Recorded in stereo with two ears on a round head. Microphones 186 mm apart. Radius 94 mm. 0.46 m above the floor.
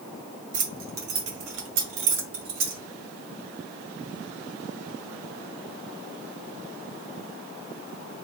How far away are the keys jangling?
About 1.0 m.